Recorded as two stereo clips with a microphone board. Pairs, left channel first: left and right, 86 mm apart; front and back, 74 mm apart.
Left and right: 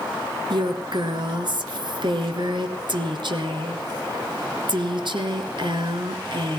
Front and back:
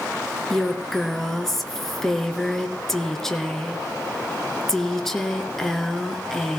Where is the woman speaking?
85° right, 2.5 m.